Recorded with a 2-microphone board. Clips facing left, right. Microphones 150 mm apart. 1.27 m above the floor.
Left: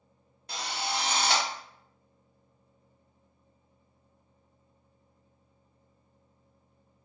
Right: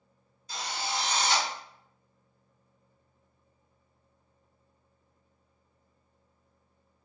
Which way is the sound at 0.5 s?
65° left (ahead or behind).